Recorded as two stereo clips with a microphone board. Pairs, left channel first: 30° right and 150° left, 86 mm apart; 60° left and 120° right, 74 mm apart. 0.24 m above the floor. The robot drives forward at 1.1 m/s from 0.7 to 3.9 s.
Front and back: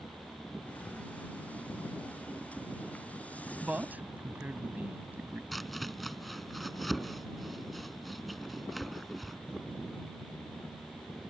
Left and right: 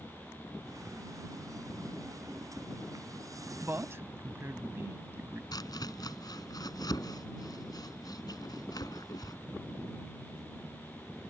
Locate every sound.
3.6 s a man speaking: 145° right; by 5.4 s 155° right
5.5 s chopping: 60° left